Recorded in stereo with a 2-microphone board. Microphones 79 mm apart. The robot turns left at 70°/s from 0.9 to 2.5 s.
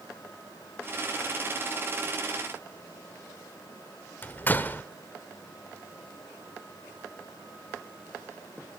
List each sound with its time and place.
4.2 s a door slam: 25° left (ahead or behind), 1.4 m